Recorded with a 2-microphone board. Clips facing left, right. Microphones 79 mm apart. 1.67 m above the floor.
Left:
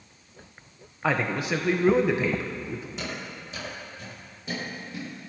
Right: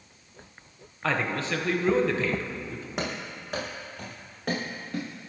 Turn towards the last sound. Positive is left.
turn(degrees=-70)  # may be behind; listen again after turning